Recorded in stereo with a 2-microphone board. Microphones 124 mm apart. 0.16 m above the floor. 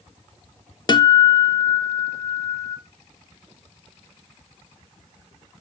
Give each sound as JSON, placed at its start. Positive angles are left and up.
{"t": 0.9, "sound": "a guitar", "side_deg": 35, "distance_m": 0.6}